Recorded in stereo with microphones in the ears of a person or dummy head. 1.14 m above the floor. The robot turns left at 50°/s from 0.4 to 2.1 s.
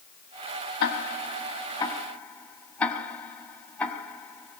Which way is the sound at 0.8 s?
70° left (ahead or behind).